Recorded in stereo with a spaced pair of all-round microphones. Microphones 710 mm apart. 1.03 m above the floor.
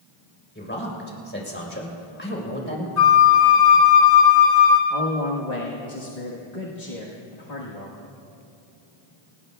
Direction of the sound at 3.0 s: 65° left (ahead or behind).